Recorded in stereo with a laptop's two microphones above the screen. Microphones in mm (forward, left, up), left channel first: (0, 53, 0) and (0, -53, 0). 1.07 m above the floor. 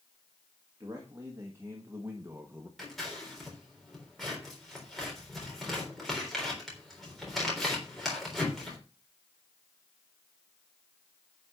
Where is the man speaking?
30° right (ahead or behind), 1.9 m; by 2.7 s 20° right (ahead or behind), 1.0 m.